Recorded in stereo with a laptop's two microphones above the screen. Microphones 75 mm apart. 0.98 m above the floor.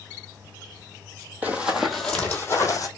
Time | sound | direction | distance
1.4 | running footsteps | 20° right (ahead or behind) | 1.3 m